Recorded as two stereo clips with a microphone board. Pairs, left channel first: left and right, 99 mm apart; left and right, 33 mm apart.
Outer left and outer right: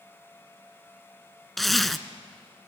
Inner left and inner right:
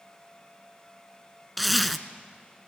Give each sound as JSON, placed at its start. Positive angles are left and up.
{"t": 1.6, "sound": "a zipper", "side_deg": 0, "distance_m": 0.9}